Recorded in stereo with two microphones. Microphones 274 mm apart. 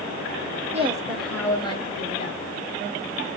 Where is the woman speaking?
25° right (ahead or behind), 0.9 m; by 2.4 s 30° left (ahead or behind), 2.5 m.